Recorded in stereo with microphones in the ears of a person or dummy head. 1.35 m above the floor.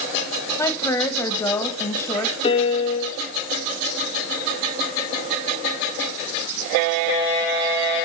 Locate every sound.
0.6 s a woman speaking: 15° left (ahead or behind), 2.0 m
2.4 s a piano: 35° left (ahead or behind), 1.9 m